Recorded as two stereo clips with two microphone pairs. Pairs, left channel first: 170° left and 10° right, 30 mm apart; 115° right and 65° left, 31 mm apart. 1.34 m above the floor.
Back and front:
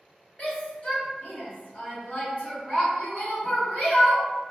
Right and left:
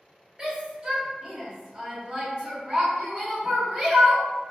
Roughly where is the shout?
Behind left.